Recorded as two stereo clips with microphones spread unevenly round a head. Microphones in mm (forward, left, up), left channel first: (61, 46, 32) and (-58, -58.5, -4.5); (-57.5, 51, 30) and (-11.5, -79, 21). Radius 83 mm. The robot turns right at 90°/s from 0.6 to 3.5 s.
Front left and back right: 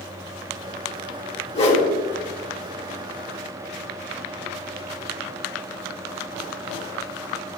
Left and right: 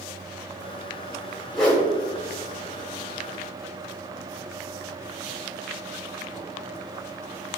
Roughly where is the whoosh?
Ahead.